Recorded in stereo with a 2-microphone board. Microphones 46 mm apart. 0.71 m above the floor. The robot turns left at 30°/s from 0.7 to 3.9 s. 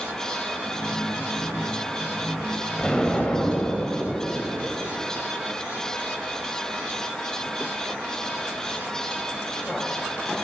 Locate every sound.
2.8 s an explosion: 165° left, 4 m; by 4.7 s 135° left, 4 m